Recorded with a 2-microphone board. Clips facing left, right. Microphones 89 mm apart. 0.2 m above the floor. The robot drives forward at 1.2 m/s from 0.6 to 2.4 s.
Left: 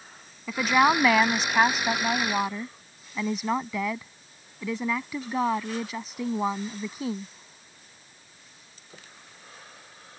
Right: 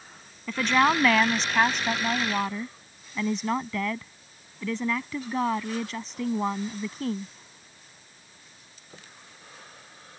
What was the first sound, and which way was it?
A woman speaking, 5° left (ahead or behind).